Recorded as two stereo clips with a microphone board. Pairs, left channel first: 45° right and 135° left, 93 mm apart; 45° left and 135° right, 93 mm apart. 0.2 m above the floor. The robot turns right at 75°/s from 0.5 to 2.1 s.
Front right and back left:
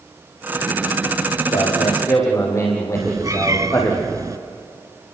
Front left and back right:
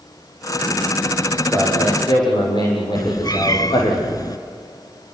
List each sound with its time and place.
1.5 s a man speaking: 35° right, 9 m; by 4.0 s 10° left, 9 m
3.0 s a cat meowing: 85° left, 1.1 m